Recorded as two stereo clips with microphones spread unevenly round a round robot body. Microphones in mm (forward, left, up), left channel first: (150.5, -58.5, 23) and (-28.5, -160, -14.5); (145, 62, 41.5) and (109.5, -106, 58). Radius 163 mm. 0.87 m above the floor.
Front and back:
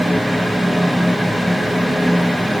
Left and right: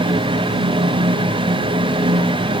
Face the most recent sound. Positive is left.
No sound to turn to.